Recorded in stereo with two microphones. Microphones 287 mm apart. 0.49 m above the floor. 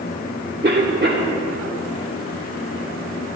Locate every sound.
0.6 s a cough: 35° right (ahead or behind), 1.1 m